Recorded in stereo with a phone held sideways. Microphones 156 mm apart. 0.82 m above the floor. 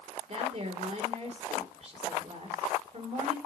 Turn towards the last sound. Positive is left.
turn(degrees=-45)  # may be behind; listen again after turning